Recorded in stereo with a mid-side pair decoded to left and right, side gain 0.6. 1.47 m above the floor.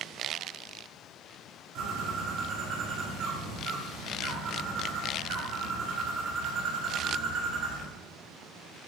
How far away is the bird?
About 6 m.